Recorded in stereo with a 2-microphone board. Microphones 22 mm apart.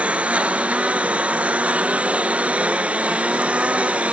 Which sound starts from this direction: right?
A lawn mower, at 0.0 s.